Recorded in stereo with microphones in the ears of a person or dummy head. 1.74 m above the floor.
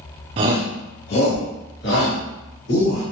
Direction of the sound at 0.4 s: 30° right (ahead or behind).